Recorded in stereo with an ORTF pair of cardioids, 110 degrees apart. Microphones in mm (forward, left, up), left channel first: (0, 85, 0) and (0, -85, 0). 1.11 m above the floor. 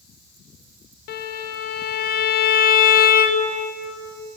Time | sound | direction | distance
1.1 | a violin | 65° left | 0.6 m